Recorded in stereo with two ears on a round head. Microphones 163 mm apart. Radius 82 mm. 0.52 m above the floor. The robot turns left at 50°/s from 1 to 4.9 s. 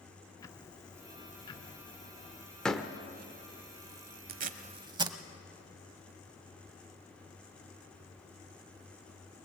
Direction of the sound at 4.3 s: 55° right (ahead or behind).